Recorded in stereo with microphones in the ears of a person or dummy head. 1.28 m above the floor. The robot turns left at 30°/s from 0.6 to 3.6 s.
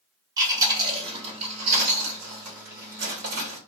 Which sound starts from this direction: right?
Chewing, at 0.4 s.